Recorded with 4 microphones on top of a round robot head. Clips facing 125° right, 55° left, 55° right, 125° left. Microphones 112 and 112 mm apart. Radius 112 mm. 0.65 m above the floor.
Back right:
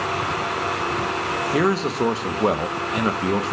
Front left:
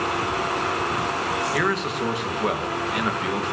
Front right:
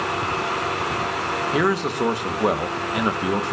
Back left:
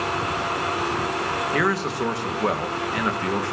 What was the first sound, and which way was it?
A man speaking, 115° right.